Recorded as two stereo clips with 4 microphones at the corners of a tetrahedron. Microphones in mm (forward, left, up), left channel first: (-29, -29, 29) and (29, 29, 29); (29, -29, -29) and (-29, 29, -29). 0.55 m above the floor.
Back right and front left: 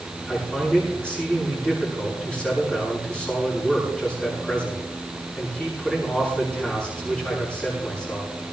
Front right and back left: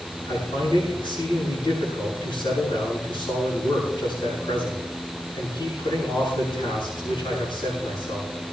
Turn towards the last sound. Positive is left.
turn(degrees=-60)